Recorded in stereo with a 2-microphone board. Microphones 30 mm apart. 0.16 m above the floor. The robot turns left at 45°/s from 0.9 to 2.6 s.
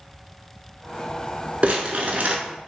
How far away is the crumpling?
About 0.6 m.